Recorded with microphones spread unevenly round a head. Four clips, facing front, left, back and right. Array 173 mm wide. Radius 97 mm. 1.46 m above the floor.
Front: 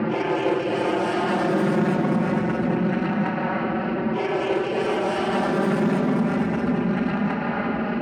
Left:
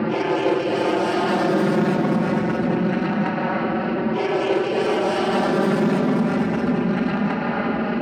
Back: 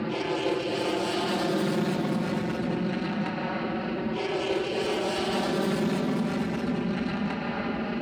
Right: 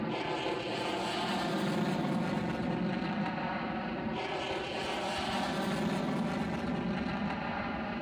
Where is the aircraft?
65° left; by 8.0 s 70° left.